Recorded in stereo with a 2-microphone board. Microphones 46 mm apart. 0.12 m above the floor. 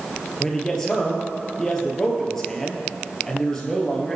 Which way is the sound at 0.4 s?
10° left (ahead or behind).